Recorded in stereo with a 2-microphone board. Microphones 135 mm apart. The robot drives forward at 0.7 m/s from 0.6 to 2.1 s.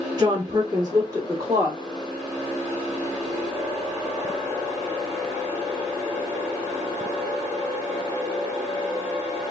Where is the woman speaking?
30° right (ahead or behind), 1.5 m; by 1.8 s 20° right (ahead or behind), 2 m.